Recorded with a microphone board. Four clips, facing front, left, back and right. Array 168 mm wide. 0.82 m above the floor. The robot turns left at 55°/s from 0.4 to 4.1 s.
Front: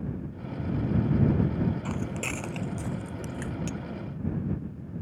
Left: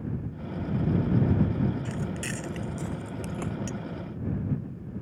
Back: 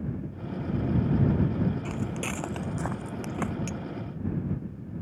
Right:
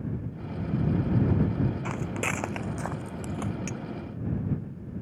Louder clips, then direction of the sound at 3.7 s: Left 1 dB, even; 70° right.